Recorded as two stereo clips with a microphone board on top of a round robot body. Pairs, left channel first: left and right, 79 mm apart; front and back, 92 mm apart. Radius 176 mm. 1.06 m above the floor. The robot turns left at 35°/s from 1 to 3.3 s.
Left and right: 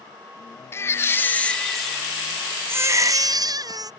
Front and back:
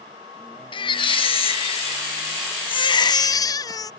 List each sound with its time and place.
0.7 s a baby crying: 30° left; by 3.9 s 50° right